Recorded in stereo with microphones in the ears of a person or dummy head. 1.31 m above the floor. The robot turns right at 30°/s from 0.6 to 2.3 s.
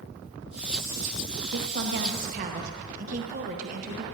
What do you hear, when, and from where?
1.5 s a woman speaking: 70° right (ahead or behind), 0.7 m; by 4.0 s 45° right (ahead or behind), 0.7 m